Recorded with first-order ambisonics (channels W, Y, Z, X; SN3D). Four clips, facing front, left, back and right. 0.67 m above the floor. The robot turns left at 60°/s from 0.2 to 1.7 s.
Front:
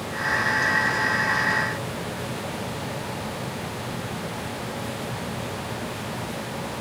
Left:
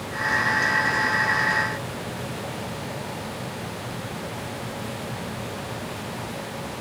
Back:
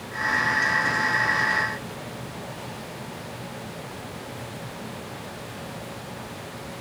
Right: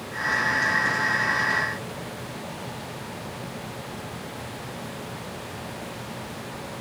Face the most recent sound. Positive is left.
No sound to turn to.